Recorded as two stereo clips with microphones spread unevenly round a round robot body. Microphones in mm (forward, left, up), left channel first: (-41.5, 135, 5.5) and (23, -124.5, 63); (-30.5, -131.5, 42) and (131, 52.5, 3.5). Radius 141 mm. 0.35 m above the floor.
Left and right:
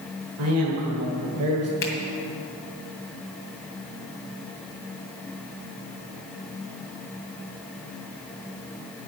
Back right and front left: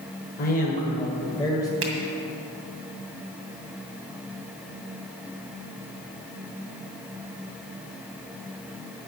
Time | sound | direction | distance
0.4 | a man speaking | 85° right | 1.9 m
1.8 | a finger snap | 60° left | 2 m